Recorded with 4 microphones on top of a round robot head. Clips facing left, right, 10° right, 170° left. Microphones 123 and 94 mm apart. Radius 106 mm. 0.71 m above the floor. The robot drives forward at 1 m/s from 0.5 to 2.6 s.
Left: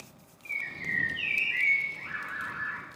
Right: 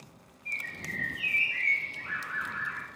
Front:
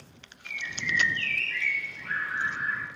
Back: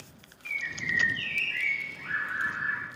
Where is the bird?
70° left, 1.2 m; by 2.9 s 145° left, 2 m.